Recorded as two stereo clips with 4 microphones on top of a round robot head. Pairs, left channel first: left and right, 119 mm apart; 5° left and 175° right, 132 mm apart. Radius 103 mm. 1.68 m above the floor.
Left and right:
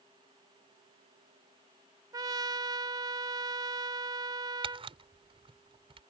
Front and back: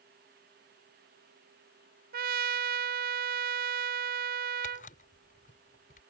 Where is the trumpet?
155° right.